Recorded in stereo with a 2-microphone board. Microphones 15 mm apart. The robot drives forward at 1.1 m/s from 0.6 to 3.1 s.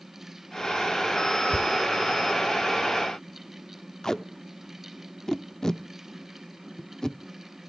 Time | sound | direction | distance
1.5 | a thud | 40° right (ahead or behind) | 1.2 m
4.0 | tape being pulled | 30° left (ahead or behind) | 0.5 m